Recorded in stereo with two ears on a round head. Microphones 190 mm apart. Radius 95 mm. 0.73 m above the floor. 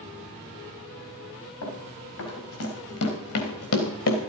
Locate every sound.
1.6 s running footsteps: 80° left, 5.5 m; by 4.2 s 65° left (ahead or behind), 2.5 m